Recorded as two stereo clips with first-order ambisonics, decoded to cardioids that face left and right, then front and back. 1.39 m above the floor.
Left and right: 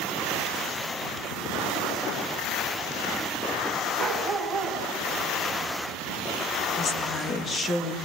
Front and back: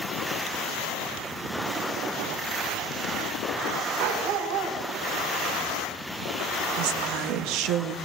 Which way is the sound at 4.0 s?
Straight behind.